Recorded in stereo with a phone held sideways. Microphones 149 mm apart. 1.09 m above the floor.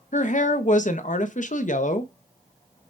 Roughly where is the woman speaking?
Left.